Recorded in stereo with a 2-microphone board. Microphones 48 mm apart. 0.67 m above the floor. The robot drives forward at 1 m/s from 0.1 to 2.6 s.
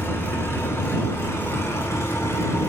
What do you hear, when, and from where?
0.0 s an engine running: 60° left (ahead or behind), 5.5 m; by 2.7 s 85° left, 5 m